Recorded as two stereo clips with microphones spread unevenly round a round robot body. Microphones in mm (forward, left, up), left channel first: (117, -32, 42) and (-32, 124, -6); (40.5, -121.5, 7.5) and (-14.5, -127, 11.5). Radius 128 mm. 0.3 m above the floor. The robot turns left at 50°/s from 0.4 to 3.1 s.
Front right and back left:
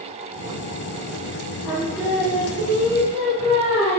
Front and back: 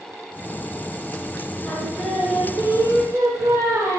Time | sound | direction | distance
1.6 | singing | 75° right | 3.5 m